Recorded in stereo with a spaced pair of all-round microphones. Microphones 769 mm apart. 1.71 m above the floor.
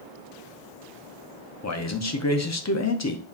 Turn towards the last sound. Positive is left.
turn(degrees=25)  # may be behind; listen again after turning